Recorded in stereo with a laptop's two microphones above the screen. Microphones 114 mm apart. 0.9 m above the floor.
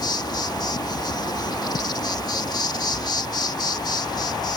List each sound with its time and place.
0.0 s an insect: 40° left (ahead or behind)